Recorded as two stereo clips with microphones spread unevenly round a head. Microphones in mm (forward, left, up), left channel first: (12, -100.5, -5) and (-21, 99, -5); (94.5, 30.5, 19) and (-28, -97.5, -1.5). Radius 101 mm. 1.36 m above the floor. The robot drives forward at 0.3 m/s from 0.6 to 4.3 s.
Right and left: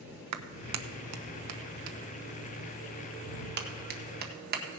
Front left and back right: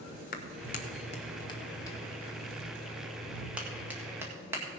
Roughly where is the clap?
Left.